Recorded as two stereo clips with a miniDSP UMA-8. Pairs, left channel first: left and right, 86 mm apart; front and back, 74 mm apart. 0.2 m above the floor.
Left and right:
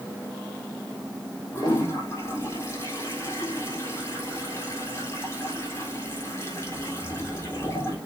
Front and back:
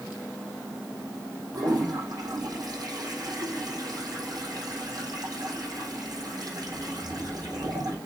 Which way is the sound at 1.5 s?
150° left.